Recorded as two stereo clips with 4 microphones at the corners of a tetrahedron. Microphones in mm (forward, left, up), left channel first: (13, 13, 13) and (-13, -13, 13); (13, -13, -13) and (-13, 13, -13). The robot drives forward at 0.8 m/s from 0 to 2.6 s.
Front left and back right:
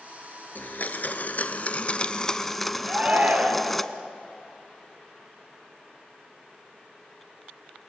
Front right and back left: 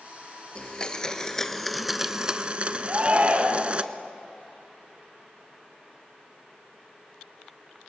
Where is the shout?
175° right, 3 m.